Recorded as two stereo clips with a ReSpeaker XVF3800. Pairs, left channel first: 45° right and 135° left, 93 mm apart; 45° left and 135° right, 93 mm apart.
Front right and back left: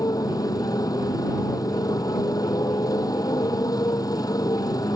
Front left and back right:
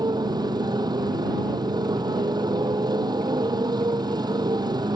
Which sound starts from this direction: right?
A motorcycle, at 0.0 s.